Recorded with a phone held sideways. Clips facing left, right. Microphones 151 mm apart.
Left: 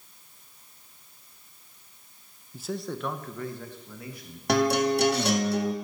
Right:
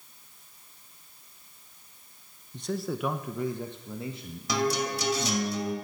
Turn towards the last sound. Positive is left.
turn(degrees=65)  # may be behind; listen again after turning